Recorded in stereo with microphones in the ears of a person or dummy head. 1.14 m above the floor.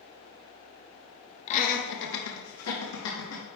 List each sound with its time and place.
1.5 s laughter: 40° left (ahead or behind), 1.3 m; by 3.4 s 60° left (ahead or behind), 1.9 m